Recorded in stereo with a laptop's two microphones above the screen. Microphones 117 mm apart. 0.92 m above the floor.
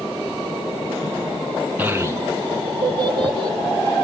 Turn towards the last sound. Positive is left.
turn(degrees=-50)  # may be behind; listen again after turning